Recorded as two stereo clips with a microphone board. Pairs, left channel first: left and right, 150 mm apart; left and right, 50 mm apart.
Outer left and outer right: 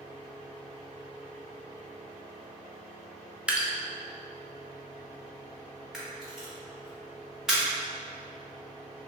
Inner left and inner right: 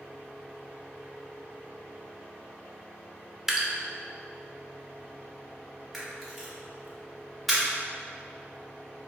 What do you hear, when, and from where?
3.5 s dripping: 10° right (ahead or behind), 0.5 m
5.9 s a camera shutter: 5° right (ahead or behind), 1.3 m